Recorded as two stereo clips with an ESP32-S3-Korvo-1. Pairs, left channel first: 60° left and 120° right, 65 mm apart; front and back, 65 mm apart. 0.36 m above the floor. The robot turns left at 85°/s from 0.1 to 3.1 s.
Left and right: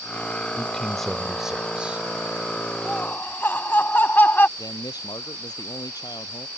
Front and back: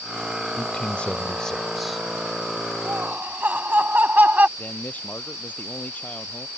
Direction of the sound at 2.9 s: 140° left.